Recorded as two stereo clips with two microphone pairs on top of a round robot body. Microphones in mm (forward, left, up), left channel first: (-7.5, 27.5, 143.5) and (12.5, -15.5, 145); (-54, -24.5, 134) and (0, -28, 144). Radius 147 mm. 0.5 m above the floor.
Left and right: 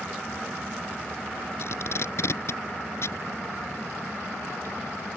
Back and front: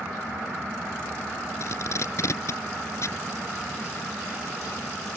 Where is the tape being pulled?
145° left.